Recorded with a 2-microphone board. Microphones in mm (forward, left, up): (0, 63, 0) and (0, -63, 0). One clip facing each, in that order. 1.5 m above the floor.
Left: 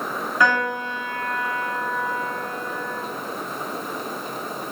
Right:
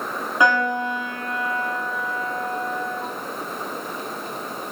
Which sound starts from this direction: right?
A piano, at 0.4 s.